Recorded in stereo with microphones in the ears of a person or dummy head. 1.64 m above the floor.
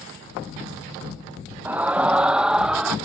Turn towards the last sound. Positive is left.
turn(degrees=0)  # may be behind; listen again after turning